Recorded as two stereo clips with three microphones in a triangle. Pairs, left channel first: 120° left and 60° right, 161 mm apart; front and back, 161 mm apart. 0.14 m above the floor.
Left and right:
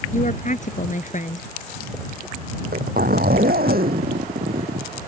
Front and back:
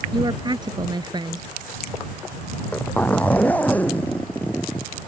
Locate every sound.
0.1 s a woman speaking: 125° left
2.5 s a zipper: 80° right